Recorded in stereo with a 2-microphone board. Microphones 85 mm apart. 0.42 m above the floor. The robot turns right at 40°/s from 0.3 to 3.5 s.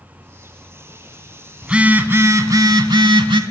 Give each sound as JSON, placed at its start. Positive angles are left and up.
{"t": 1.6, "sound": "a phone buzzing", "azimuth_deg": -170, "distance_m": 0.6}